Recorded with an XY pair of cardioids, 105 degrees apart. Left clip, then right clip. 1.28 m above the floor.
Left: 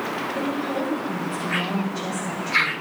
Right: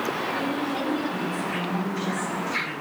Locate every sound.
0.3 s a woman speaking: 50° left, 5.5 m